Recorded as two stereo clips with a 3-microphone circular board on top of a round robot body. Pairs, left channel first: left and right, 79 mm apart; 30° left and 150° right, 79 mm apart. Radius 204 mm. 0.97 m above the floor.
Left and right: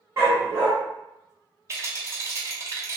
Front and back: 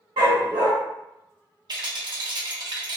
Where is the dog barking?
145° right, 1.0 m.